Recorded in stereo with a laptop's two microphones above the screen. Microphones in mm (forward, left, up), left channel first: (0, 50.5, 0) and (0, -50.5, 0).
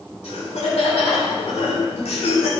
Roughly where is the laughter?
Left.